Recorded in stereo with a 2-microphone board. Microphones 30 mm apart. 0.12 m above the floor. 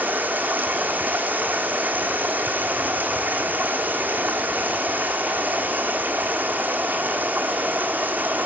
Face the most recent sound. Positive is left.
turn(degrees=-75)  # may be behind; listen again after turning